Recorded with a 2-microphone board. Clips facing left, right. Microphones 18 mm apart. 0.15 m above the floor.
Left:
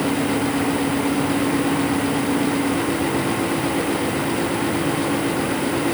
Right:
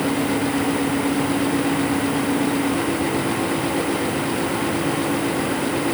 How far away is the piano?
I don't hear a piano.